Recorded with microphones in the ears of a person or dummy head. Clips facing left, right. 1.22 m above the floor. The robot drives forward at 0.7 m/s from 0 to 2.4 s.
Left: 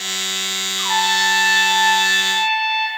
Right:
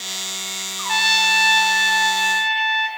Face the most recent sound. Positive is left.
turn(degrees=-25)  # may be behind; listen again after turning